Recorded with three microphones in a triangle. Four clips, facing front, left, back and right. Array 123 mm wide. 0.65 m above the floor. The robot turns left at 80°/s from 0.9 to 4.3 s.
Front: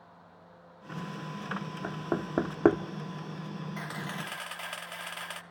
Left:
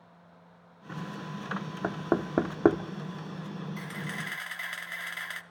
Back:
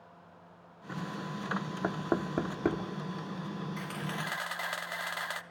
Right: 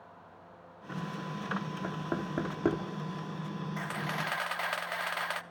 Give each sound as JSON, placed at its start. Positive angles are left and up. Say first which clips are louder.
{"t": 1.8, "sound": "knocking", "louder": "left 10 dB, back 1 dB", "azimuth_deg": 120, "distance_m": 1.1}
{"t": 3.8, "sound": "a camera shutter", "louder": "right 3 dB, even", "azimuth_deg": -60, "distance_m": 0.5}